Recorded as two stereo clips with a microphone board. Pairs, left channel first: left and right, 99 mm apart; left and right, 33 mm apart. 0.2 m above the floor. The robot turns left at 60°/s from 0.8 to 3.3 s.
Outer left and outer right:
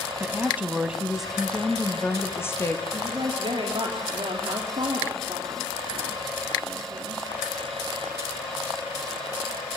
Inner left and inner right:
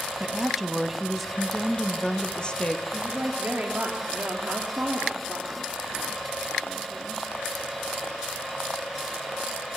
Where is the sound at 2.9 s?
30° right (ahead or behind), 3.5 m; by 7.2 s 55° right (ahead or behind), 3.5 m.